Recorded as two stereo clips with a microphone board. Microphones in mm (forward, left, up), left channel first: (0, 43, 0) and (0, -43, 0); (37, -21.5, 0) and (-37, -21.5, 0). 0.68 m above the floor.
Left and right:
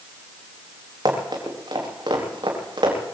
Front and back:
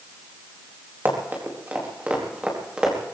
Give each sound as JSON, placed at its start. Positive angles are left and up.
{"t": 1.1, "sound": "running footsteps", "azimuth_deg": -120, "distance_m": 5.0}